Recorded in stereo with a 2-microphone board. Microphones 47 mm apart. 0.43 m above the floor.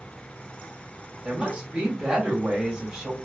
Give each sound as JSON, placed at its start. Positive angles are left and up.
{"t": 1.2, "sound": "a woman speaking", "side_deg": -20, "distance_m": 1.5}